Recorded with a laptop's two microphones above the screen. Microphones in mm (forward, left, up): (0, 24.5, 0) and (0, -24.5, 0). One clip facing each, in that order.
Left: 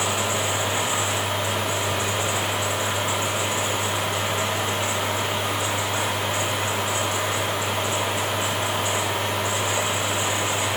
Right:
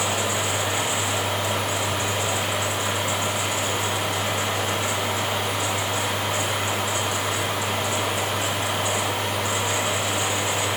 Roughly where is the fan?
Left.